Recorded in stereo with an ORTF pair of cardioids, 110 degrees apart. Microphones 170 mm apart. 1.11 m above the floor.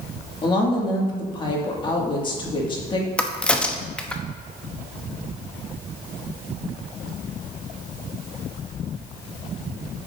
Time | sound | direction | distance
0.4 | a woman speaking | 30° left | 2 m
3.2 | a crack | 5° left | 0.8 m